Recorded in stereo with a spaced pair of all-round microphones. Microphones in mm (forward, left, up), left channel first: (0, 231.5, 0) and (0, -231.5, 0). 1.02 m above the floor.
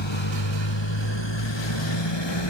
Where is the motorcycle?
70° left (ahead or behind); by 2.5 s 65° left (ahead or behind).